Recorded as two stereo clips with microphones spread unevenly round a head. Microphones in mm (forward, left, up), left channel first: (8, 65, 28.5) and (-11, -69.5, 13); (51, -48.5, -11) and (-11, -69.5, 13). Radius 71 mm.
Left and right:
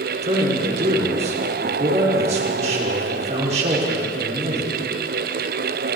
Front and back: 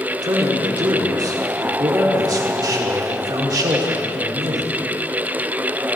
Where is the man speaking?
140° right, 4.5 m.